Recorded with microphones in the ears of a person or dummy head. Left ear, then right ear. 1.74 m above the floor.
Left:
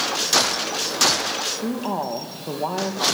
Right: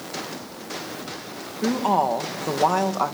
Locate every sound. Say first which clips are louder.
1.6 s a woman speaking: right 5 dB; 50° right (ahead or behind), 2.5 m